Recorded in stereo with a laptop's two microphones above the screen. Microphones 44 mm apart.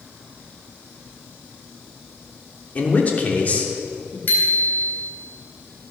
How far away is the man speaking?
About 3 m.